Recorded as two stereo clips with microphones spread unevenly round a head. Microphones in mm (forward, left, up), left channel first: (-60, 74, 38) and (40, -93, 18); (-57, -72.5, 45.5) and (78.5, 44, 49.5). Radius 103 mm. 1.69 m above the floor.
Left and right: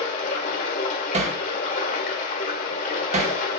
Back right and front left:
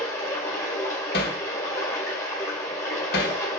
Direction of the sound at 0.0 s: 145° left.